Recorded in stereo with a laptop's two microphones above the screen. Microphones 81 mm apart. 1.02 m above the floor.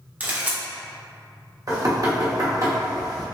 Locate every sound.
0.2 s a camera shutter: 20° right (ahead or behind), 0.6 m
1.7 s knocking: 50° right (ahead or behind), 0.9 m